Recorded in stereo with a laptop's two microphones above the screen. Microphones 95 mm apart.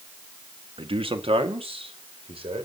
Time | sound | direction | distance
0.8 | a man speaking | 65° right (ahead or behind) | 1.3 m